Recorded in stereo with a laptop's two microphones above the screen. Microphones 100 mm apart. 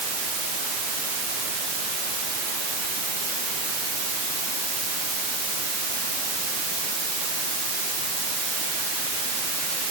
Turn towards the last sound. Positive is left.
No sound to turn to.